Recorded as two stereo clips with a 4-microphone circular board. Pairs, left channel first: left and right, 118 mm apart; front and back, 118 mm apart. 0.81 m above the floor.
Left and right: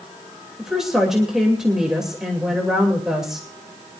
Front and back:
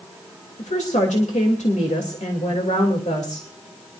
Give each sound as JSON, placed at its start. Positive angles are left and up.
{"t": 0.6, "sound": "a woman speaking", "azimuth_deg": -5, "distance_m": 3.0}